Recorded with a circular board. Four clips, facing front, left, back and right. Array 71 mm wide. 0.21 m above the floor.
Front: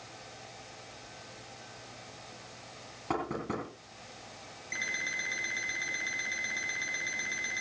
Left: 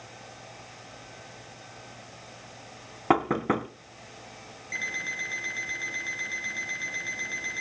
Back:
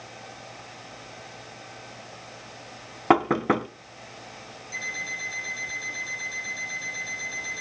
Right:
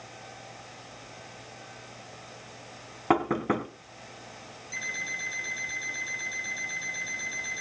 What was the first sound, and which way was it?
Knocking, 170° left.